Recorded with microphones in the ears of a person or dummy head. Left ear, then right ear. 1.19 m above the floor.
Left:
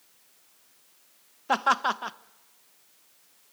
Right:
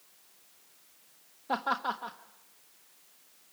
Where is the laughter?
65° left (ahead or behind), 1.0 m.